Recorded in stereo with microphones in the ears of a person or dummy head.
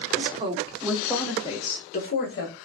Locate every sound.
0.1 s a woman speaking: 40° right (ahead or behind), 0.8 m; by 2.5 s 65° left (ahead or behind), 1.0 m